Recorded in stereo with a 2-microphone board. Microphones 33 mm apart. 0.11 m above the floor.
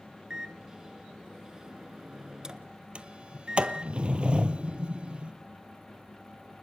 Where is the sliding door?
40° right (ahead or behind), 1.4 m.